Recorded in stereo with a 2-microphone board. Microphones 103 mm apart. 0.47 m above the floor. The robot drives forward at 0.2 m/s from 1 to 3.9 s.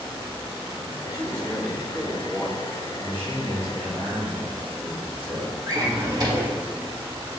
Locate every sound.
1.1 s a man speaking: 30° right (ahead or behind), 1.2 m; by 2.7 s 25° right (ahead or behind), 1.3 m
3.0 s a man speaking: 70° right (ahead or behind), 1.9 m
5.7 s a drawer: 40° right (ahead or behind), 0.7 m